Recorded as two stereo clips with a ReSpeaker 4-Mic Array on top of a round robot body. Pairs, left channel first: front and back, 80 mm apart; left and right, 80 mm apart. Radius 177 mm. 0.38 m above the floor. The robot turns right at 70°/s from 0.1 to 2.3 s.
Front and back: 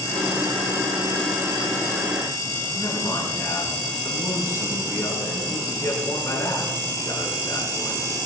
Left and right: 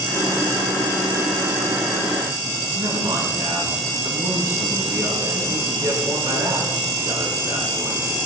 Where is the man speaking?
50° right, 7 m.